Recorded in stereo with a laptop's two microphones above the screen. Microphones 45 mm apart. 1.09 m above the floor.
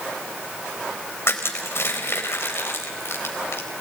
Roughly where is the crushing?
Left.